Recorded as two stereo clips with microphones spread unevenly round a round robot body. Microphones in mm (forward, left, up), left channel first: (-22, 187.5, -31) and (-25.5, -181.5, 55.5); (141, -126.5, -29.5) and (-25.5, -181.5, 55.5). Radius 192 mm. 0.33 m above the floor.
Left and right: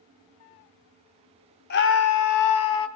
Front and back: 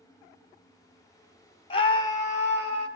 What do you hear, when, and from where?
1.7 s a scream: 40° left, 1.6 m; by 2.9 s 95° left, 2.5 m